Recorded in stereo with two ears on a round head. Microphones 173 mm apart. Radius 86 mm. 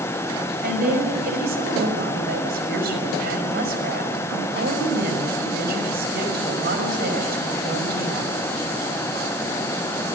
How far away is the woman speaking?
About 5.5 m.